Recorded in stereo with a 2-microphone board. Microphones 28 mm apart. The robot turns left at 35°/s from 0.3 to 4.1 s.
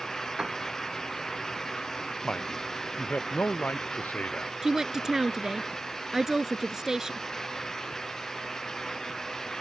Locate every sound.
0.4 s a piano: 30° right (ahead or behind); by 0.6 s 25° right (ahead or behind)
2.2 s a man speaking: 150° left; by 4.5 s 85° left
4.6 s a woman speaking: 20° right (ahead or behind)